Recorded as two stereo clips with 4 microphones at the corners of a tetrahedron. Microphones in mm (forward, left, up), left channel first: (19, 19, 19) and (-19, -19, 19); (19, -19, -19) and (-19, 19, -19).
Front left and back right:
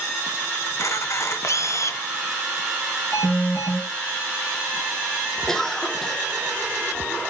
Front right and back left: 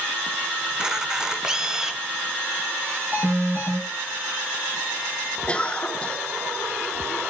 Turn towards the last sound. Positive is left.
turn(degrees=-25)